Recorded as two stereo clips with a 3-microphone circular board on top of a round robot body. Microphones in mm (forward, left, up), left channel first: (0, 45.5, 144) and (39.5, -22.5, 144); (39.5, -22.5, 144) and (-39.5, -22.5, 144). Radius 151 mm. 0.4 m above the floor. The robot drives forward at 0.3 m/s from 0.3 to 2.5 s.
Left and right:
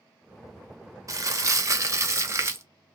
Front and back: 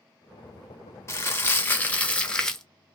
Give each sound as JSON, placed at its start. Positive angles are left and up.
{"t": 1.1, "sound": "crumpling", "azimuth_deg": -40, "distance_m": 1.0}